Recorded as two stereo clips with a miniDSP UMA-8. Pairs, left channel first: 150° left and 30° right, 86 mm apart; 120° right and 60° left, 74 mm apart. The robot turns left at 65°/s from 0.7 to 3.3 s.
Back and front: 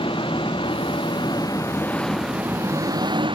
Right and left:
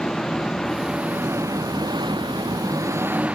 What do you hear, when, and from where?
0.0 s an engine running: 155° left; by 3.4 s 15° right